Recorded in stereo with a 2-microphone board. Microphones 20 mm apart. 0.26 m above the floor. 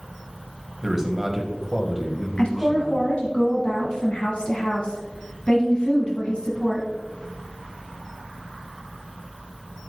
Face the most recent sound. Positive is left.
turn(degrees=60)  # may be behind; listen again after turning